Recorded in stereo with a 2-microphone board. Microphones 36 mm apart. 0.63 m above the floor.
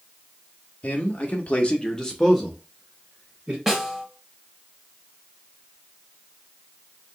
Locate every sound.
0.8 s a man speaking: 45° left (ahead or behind), 0.8 m; by 3.6 s 10° right (ahead or behind), 1.2 m
3.7 s a snare drum: 10° right (ahead or behind), 0.8 m